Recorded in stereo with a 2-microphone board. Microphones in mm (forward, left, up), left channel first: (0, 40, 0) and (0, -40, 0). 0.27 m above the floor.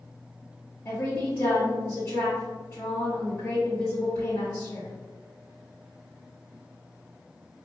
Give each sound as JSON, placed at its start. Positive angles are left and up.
{"t": 0.8, "sound": "a woman speaking", "side_deg": 25, "distance_m": 1.9}